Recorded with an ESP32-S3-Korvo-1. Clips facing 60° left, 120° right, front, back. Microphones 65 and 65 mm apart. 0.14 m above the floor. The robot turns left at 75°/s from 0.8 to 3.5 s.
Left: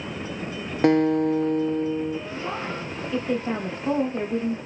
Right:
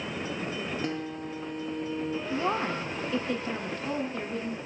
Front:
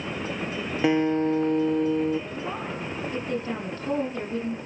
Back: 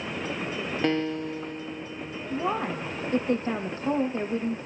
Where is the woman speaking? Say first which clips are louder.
Right 2 dB, back 4 dB; 150° right, 5.5 m; by 4.6 s 120° left, 5.5 m.